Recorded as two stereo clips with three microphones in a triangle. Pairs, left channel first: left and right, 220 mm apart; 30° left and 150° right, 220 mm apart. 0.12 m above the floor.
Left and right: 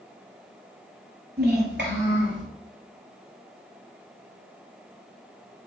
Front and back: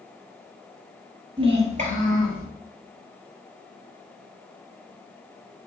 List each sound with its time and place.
1.4 s a child speaking: 90° right, 1.5 m; by 2.5 s 105° right, 2.5 m